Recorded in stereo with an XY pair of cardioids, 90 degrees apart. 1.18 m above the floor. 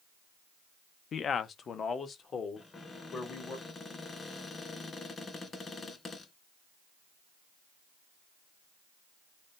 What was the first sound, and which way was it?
A man speaking, 65° left.